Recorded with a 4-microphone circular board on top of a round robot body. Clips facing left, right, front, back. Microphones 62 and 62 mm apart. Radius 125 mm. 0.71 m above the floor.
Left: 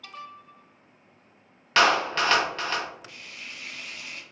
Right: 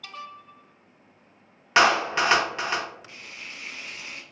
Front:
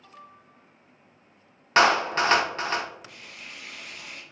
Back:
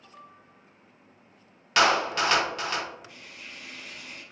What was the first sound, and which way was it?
A clap, 25° right.